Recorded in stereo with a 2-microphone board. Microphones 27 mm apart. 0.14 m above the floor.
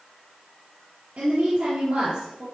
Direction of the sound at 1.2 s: 60° right (ahead or behind).